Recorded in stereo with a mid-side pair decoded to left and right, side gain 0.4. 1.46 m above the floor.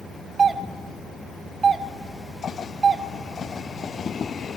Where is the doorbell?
45° right, 2.5 m.